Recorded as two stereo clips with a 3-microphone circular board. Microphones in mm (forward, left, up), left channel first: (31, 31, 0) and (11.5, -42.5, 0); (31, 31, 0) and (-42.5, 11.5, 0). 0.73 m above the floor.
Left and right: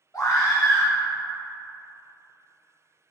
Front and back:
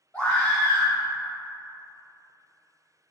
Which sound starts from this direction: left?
A scream, at 0.1 s.